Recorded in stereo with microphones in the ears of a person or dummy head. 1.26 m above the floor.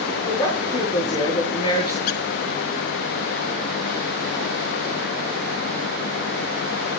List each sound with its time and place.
0.3 s a woman speaking: 30° left (ahead or behind), 8.5 m
2.1 s a squeak: 50° left (ahead or behind), 0.8 m